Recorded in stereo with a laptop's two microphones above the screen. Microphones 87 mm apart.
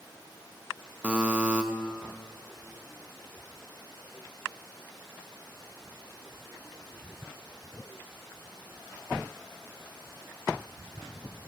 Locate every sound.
1.0 s a buzzer: 15° right (ahead or behind), 0.7 m